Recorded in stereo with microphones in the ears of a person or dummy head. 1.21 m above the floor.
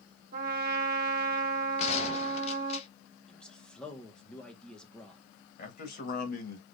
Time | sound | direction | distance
0.3 | a trumpet | 45° right (ahead or behind) | 1.3 m
1.8 | a gunshot | 40° left (ahead or behind) | 1.0 m
3.3 | a man speaking | 5° left (ahead or behind) | 1.6 m
5.6 | a man speaking | 50° left (ahead or behind) | 1.4 m